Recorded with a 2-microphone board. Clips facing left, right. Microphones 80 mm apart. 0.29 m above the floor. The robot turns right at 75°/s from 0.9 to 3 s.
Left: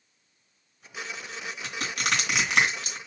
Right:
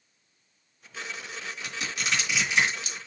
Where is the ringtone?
No ringtone in this recording.